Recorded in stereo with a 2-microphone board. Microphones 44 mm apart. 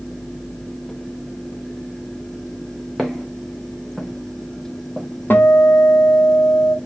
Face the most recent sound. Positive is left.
turn(degrees=50)  # may be behind; listen again after turning